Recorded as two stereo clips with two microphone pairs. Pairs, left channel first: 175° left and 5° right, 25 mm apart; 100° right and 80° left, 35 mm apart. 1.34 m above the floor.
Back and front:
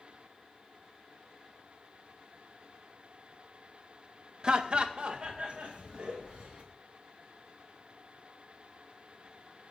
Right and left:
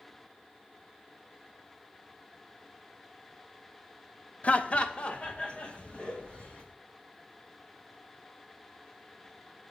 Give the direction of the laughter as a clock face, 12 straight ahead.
2 o'clock.